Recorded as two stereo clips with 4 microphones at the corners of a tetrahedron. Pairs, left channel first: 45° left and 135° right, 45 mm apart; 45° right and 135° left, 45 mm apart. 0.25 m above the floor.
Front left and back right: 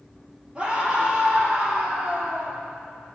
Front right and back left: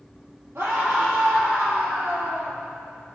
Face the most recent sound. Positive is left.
turn(degrees=160)